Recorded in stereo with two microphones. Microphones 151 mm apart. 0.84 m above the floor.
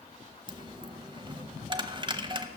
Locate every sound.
0.5 s a dropped coin: 30° right (ahead or behind), 0.8 m